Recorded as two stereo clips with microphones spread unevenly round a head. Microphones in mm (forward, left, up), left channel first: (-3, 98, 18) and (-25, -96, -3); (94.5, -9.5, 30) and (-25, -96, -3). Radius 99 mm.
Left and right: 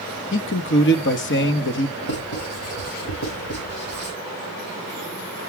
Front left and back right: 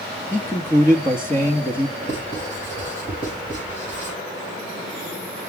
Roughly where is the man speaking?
Behind left.